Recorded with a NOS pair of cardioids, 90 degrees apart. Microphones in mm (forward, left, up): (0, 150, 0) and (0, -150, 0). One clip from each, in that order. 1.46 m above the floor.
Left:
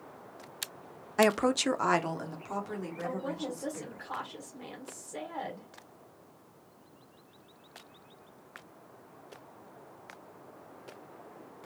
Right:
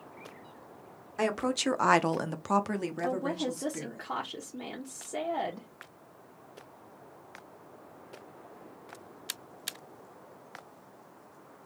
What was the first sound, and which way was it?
A woman speaking, 35° left.